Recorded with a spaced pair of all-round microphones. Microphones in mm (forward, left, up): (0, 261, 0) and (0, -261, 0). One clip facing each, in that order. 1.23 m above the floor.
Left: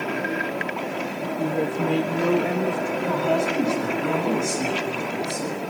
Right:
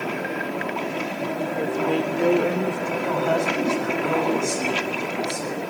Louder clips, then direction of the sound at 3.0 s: Even; 45° left (ahead or behind).